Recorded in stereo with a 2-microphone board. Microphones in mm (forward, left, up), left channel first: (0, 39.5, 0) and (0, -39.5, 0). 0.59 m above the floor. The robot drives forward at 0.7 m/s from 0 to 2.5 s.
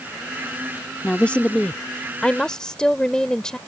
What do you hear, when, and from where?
1.0 s a woman speaking: 20° left (ahead or behind); by 3.6 s 10° left (ahead or behind)